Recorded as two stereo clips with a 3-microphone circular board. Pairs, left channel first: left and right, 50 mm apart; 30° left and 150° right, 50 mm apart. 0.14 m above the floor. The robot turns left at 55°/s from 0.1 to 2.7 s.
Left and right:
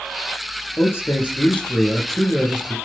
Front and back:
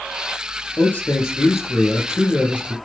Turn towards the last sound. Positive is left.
turn(degrees=-30)